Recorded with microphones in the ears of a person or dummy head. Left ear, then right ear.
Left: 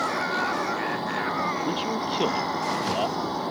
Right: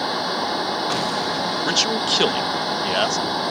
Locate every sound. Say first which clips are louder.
0.0 s a fan: right 2 dB; 30° right (ahead or behind)
1.6 s a man speaking: right 7 dB; 50° right (ahead or behind)